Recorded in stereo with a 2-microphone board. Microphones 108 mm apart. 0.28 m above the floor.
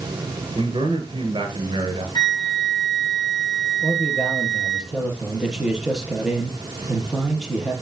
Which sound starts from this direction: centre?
A man speaking, at 3.8 s.